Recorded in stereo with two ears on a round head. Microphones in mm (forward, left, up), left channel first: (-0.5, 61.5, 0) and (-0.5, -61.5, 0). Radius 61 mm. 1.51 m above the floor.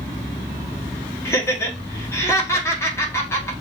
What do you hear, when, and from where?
1.2 s laughter: 20° left (ahead or behind), 1.2 m